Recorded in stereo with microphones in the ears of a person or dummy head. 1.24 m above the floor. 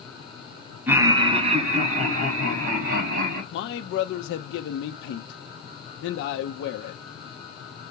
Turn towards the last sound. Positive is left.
turn(degrees=75)  # may be behind; listen again after turning